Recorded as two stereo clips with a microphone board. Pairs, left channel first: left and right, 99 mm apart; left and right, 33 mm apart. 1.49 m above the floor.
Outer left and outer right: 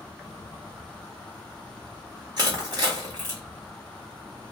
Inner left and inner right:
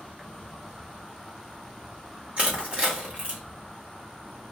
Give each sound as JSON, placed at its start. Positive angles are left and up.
{"t": 0.0, "sound": "an insect", "side_deg": 10, "distance_m": 0.9}
{"t": 2.4, "sound": "crushing", "side_deg": -40, "distance_m": 1.8}